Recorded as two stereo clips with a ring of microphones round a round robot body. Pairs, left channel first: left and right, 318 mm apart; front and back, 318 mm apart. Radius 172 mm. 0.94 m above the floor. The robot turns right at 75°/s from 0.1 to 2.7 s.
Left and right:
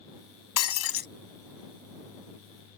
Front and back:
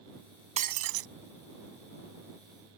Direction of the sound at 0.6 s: 110° left.